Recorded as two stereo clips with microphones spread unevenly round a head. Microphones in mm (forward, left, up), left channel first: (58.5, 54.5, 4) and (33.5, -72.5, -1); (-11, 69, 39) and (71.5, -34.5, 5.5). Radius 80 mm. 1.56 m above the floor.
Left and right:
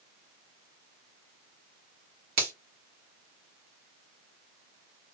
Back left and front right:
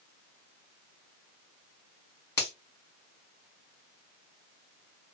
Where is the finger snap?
160° right, 1.2 m.